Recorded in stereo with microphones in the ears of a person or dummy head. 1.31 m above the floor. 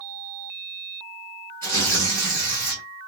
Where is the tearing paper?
15° left (ahead or behind), 2 m.